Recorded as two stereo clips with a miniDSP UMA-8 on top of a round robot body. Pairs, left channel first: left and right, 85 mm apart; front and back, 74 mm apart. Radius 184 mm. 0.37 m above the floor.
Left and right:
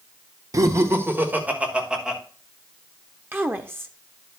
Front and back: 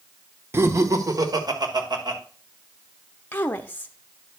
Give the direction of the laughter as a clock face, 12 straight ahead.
4 o'clock.